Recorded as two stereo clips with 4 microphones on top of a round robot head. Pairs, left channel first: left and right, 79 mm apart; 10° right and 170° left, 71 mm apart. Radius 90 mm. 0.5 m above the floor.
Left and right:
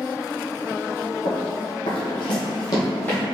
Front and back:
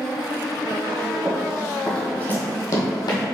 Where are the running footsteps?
95° left, 1.8 m; by 3.2 s 15° left, 1.5 m.